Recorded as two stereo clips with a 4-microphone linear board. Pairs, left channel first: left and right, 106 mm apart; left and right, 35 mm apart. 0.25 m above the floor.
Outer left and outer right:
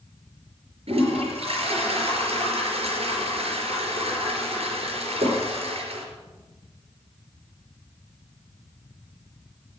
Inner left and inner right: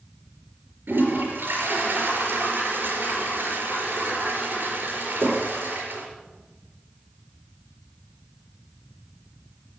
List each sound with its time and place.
0.9 s a toilet flushing: 75° right (ahead or behind), 4.5 m